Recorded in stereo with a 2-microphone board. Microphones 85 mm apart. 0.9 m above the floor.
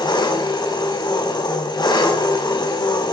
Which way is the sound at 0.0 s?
60° left (ahead or behind).